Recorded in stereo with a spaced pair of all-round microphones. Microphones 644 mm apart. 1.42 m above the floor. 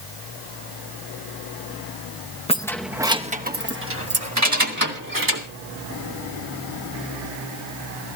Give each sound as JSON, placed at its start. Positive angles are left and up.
{"t": 2.5, "sound": "keys jangling", "side_deg": 10, "distance_m": 0.7}